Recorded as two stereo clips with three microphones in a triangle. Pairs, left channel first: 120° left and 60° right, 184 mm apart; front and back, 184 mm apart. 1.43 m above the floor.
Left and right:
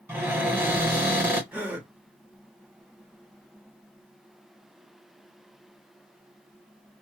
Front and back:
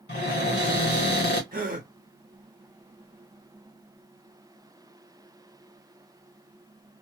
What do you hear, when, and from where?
0.1 s a cupboard door: 15° left, 1.4 m
1.5 s a gasp: 140° right, 0.7 m